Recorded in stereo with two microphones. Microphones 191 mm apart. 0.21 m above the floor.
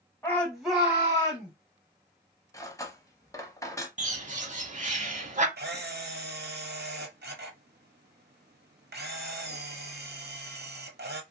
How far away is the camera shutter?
About 0.8 m.